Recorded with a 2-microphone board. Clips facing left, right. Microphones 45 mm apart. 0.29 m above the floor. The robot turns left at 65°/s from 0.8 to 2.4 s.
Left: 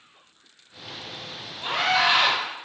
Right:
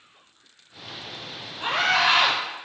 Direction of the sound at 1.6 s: 70° right.